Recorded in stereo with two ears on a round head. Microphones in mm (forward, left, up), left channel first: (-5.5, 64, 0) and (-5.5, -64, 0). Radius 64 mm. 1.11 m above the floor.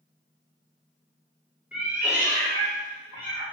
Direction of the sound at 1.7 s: 10° right (ahead or behind).